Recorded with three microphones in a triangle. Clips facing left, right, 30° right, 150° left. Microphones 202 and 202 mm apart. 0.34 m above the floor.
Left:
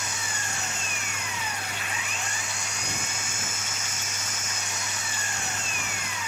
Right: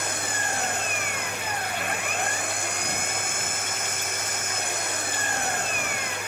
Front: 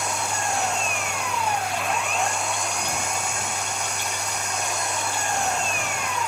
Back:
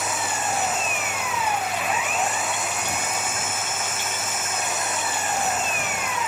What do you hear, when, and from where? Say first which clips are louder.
0.0 s an engine running: right 6 dB, even; 125° right